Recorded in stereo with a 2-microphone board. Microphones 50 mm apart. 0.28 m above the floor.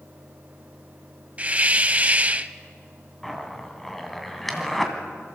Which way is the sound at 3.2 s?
5° left (ahead or behind).